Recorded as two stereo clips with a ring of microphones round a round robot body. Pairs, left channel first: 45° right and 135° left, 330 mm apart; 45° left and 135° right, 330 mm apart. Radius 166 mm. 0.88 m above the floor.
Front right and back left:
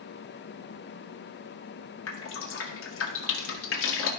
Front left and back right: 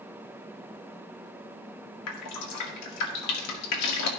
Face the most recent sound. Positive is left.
turn(degrees=5)